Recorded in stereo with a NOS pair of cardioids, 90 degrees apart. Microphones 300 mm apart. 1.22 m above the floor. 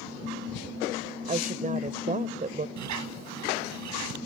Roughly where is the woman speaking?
Ahead right.